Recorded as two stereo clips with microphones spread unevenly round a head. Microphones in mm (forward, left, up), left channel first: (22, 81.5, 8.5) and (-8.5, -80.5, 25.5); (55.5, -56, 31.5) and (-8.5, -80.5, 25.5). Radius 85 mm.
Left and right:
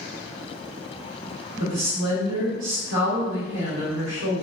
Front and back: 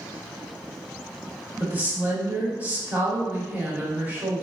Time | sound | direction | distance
1.6 | a woman speaking | 90° right | 1.3 m